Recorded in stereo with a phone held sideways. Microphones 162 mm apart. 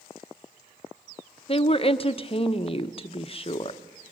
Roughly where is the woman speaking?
Left.